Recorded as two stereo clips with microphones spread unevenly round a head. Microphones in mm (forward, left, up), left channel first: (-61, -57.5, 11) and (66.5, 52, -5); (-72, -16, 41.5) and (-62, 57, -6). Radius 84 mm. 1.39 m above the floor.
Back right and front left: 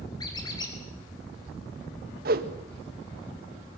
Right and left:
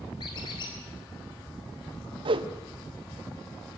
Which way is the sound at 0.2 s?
75° right.